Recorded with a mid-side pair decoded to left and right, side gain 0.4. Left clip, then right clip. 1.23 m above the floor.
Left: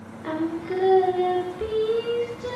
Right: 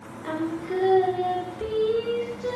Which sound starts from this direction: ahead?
Singing, at 0.2 s.